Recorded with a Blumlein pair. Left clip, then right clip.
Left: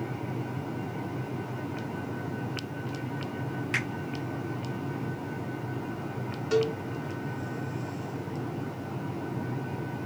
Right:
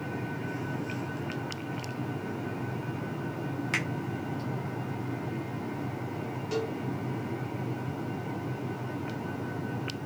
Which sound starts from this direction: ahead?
A cowbell, at 6.5 s.